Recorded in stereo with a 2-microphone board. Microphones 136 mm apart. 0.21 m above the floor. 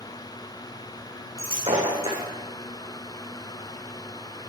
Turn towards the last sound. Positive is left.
turn(degrees=-45)  # may be behind; listen again after turning